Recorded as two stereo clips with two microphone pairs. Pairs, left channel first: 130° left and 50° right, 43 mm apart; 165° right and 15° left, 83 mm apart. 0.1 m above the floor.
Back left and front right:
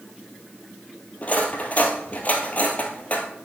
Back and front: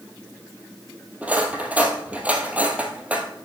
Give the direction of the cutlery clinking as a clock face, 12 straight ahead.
9 o'clock.